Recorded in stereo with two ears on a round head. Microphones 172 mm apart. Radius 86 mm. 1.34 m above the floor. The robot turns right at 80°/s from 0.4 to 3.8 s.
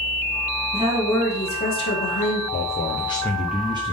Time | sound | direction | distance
0.7 | a woman speaking | 30° right | 2.5 m
2.5 | a man speaking | 105° left | 0.8 m